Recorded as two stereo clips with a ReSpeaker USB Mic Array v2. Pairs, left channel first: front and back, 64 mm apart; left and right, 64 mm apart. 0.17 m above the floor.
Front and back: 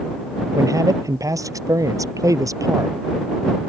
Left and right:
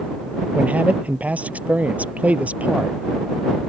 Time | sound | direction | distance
0.6 | a man speaking | 160° right | ?